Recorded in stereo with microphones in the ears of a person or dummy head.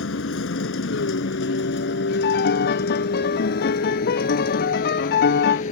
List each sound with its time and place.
0.0 s a vehicle: 85° left; by 5.7 s 50° left (ahead or behind)
2.2 s a piano: 65° left (ahead or behind)